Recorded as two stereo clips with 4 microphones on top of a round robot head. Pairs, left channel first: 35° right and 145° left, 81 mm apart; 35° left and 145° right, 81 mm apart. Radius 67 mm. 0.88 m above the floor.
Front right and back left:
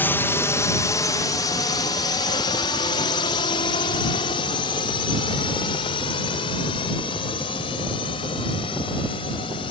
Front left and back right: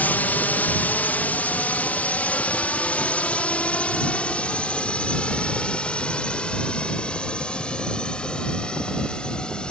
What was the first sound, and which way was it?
A drone, 5° right.